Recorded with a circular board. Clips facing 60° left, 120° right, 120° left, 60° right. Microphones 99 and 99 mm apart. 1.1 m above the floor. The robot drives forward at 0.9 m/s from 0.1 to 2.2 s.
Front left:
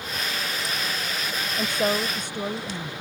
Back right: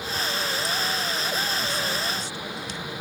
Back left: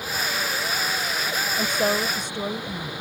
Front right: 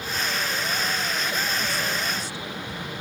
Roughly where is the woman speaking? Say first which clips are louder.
Front left 4 dB, back left 5 dB; left.